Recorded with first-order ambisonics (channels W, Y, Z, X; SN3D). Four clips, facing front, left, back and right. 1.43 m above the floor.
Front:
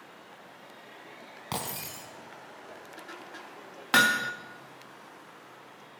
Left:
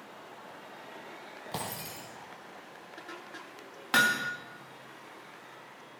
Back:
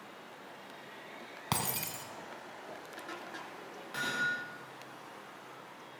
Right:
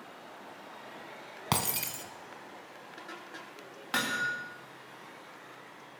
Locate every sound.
1.5 s breaking glass: 105° right, 3.5 m
3.9 s hammering: 15° left, 2 m